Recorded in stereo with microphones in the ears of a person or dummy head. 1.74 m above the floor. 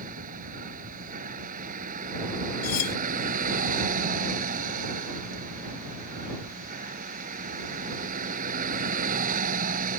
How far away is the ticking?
No ticking in this recording.